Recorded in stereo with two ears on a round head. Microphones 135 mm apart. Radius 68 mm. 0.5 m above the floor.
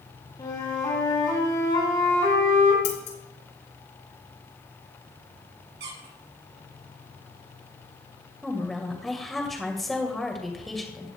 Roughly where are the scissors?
Left.